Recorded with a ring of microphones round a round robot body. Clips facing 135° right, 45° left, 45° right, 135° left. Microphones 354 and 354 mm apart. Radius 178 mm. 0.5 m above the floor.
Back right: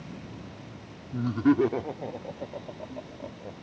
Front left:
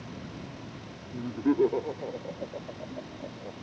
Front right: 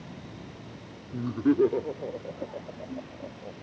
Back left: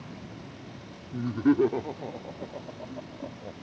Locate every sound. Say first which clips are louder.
1.1 s laughter: back right 3 dB, back left 1 dB; 140° right; by 3.6 s straight behind